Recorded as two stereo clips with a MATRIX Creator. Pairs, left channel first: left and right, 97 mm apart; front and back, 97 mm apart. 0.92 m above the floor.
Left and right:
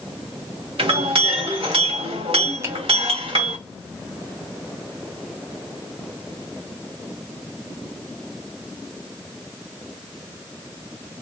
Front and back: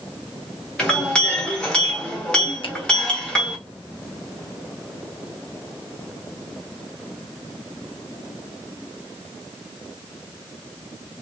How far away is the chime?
No chime in this recording.